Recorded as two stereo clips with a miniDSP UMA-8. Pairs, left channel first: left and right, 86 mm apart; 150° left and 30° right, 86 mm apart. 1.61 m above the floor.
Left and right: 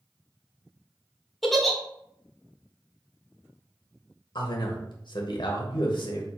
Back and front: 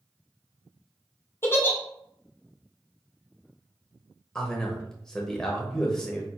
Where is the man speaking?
65° left, 0.9 m.